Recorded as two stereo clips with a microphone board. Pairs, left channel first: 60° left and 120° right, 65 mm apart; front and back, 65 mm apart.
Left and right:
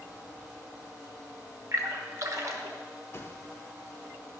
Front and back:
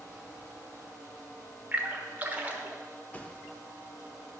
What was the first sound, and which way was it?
A splash, 120° right.